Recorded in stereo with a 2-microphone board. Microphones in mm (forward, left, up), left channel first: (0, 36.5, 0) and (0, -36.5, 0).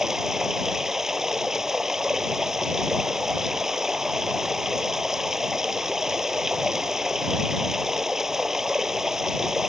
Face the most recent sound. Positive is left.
turn(degrees=-5)  # may be behind; listen again after turning